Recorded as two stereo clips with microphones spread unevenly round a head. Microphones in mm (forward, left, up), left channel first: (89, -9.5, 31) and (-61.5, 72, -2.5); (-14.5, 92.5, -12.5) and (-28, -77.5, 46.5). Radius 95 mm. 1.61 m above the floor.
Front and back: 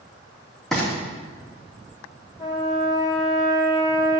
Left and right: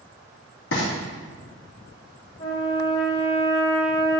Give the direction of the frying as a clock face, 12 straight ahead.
10 o'clock.